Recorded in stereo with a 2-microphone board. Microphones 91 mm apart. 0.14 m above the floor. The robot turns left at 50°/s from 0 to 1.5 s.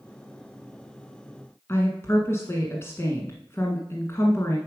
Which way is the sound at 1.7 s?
30° left (ahead or behind).